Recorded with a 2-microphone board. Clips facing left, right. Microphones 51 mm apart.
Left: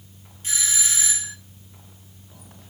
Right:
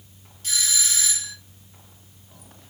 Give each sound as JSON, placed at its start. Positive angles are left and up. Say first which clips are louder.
{"t": 0.4, "sound": "a doorbell", "louder": "even", "side_deg": 25, "distance_m": 1.4}